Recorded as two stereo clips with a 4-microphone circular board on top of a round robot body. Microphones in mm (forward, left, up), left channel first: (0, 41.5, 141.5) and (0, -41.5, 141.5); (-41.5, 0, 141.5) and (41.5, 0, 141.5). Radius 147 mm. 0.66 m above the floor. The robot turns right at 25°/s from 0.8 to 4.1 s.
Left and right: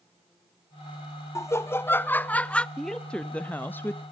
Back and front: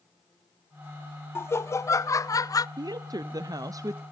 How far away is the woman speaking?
About 0.6 m.